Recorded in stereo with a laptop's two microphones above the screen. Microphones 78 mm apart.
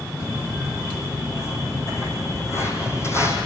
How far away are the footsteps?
About 4.5 m.